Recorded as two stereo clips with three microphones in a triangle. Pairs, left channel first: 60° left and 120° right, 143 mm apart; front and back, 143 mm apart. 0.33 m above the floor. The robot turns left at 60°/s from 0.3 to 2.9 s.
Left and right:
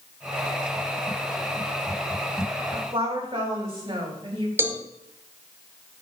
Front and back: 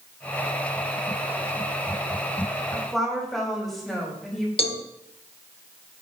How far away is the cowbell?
About 0.5 m.